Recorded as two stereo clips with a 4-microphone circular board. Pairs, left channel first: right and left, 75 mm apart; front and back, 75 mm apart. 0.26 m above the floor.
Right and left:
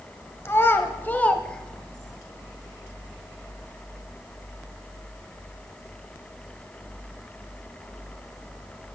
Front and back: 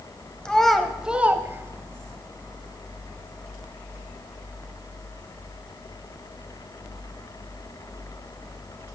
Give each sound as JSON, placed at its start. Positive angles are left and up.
{"t": 0.5, "sound": "a child speaking", "azimuth_deg": -70, "distance_m": 1.0}